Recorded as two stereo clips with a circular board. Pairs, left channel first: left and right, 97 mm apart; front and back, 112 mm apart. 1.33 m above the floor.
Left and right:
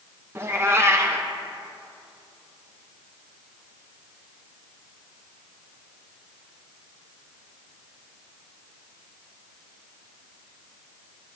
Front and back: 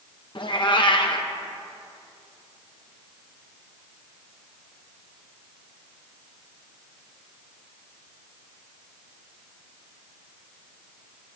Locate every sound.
0.3 s a cat meowing: 30° right, 0.8 m